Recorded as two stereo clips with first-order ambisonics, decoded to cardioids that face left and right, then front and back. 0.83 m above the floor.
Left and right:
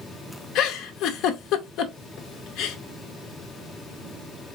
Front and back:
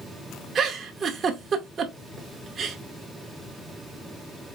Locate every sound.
0.6 s a giggle: 115° left, 0.7 m